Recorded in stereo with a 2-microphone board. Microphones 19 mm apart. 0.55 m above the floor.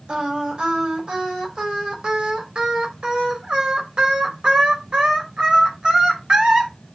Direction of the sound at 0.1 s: 60° right (ahead or behind).